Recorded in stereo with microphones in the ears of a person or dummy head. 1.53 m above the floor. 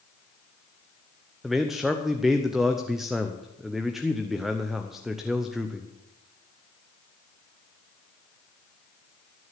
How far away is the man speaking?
About 0.8 m.